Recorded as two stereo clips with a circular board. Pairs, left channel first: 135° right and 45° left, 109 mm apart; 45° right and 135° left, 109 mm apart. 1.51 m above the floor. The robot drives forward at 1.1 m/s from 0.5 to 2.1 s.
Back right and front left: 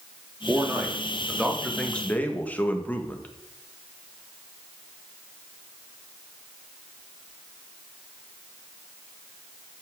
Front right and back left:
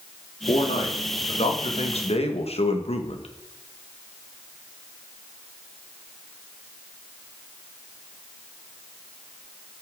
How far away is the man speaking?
About 3 m.